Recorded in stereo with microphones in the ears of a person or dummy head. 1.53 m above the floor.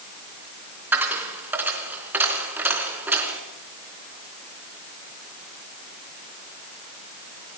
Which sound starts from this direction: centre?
A dropped coin, at 0.9 s.